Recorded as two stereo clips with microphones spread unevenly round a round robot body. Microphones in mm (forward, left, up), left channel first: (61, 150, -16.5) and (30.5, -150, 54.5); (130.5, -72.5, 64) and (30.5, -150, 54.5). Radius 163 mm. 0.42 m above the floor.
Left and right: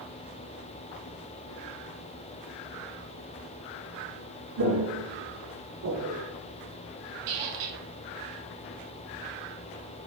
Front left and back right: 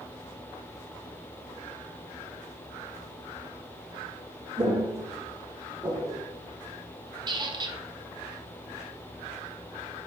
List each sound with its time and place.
4.6 s footsteps: 80° right, 2.0 m; by 6.2 s 50° right, 1.9 m
7.3 s a squeak: 85° right, 1.0 m